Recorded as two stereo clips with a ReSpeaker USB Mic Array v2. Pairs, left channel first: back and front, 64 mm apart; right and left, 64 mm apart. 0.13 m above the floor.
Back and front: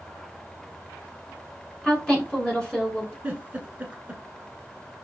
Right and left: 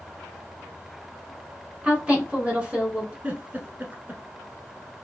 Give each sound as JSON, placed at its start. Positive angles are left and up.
{"t": 1.8, "sound": "a woman speaking", "azimuth_deg": 130, "distance_m": 1.2}
{"t": 3.2, "sound": "a giggle", "azimuth_deg": 45, "distance_m": 0.8}